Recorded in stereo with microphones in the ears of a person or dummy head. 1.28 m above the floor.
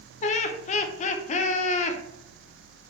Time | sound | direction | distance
0.2 | laughter | 40° left (ahead or behind) | 0.6 m